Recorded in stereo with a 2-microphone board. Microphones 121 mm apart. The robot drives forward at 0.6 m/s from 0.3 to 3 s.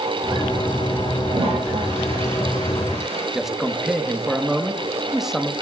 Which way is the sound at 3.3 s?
5° right (ahead or behind).